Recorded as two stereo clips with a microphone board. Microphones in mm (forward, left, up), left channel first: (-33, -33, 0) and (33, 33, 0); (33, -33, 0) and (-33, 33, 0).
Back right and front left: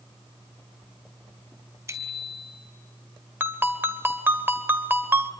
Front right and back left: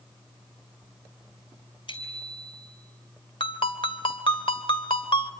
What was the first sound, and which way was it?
A bicycle bell, 20° right.